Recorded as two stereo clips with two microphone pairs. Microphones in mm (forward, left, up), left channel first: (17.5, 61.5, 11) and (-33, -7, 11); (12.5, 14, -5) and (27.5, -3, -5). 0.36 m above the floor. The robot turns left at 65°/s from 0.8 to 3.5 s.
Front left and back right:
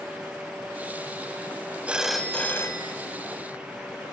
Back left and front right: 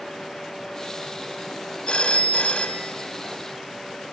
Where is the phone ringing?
160° left, 1.8 m; by 3.0 s 85° left, 1.8 m.